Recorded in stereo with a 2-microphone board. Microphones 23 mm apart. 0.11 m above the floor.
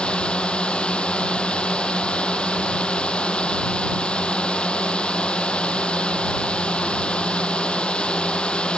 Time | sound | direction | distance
0.0 | a drone | 60° left (ahead or behind) | ?